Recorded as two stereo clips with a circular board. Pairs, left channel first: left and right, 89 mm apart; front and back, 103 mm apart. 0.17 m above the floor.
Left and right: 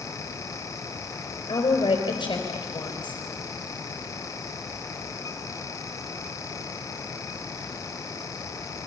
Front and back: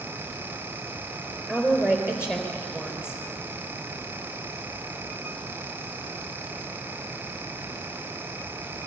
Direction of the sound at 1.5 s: 100° left.